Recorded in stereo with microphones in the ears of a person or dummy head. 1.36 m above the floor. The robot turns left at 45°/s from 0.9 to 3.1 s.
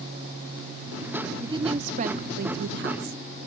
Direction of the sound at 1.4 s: 25° right.